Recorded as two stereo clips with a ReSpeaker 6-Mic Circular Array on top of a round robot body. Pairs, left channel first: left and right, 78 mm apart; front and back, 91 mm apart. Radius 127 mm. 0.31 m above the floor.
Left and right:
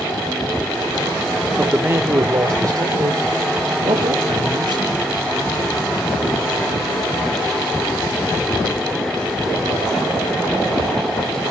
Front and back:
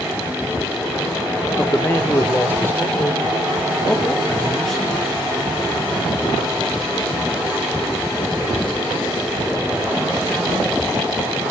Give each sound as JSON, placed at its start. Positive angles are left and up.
{"t": 1.6, "sound": "a man speaking", "azimuth_deg": -35, "distance_m": 1.6}